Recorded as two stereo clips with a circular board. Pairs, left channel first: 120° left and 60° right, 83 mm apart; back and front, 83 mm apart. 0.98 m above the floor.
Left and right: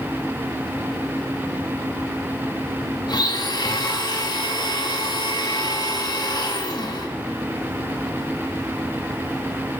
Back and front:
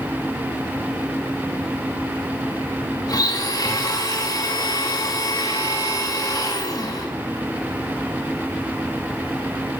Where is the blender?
145° left, 2 m.